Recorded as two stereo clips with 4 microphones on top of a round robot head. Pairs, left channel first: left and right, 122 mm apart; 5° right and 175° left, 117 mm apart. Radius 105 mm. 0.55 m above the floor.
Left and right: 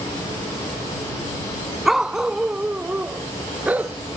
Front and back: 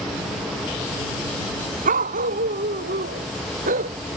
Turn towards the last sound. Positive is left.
turn(degrees=-165)